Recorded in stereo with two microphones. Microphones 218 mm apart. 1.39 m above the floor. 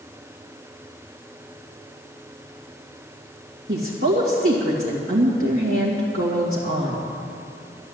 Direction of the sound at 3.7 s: 65° right (ahead or behind).